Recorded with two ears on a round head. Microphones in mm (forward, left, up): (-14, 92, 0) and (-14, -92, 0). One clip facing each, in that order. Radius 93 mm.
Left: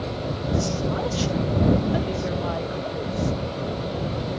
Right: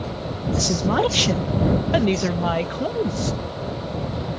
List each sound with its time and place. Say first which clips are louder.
0.6 s a woman speaking: right 6 dB; 60° right (ahead or behind); by 3.4 s 75° right (ahead or behind)